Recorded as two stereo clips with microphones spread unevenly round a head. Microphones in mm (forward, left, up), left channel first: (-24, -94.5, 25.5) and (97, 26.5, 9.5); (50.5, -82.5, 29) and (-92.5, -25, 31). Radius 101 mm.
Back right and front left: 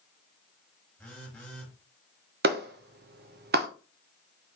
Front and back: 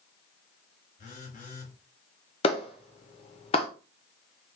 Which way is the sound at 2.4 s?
35° left.